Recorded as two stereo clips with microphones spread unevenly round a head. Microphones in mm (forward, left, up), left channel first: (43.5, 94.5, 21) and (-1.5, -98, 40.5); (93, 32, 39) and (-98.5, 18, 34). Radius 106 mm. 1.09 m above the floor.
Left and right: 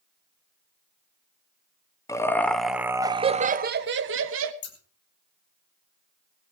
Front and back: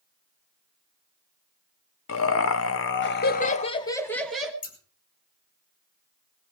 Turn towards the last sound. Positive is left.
turn(degrees=50)